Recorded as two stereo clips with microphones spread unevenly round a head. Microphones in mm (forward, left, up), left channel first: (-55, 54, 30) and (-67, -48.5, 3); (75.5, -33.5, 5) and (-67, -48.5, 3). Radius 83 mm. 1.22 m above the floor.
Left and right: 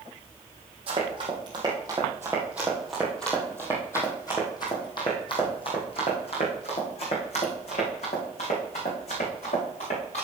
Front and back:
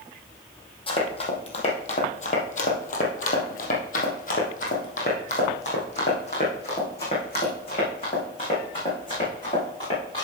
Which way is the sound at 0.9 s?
40° right.